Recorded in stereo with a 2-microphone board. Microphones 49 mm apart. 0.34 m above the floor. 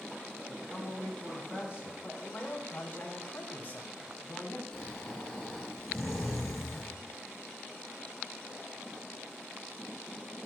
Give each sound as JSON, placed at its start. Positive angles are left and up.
{"t": 0.5, "sound": "a man speaking", "side_deg": -25, "distance_m": 4.5}
{"t": 2.0, "sound": "a man speaking", "side_deg": 40, "distance_m": 3.0}
{"t": 4.7, "sound": "snoring", "side_deg": 5, "distance_m": 6.5}